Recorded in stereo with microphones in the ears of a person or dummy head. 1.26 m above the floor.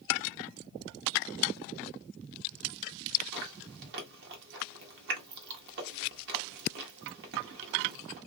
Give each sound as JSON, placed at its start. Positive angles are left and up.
{"t": 3.3, "sound": "chewing", "side_deg": -60, "distance_m": 1.3}